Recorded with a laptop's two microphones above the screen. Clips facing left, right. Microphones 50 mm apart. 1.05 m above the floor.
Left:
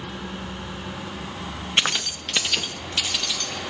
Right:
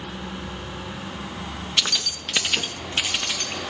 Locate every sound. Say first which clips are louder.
1.8 s keys jangling: left 3 dB; 35° left (ahead or behind), 0.5 m; by 3.6 s 40° right (ahead or behind), 1.2 m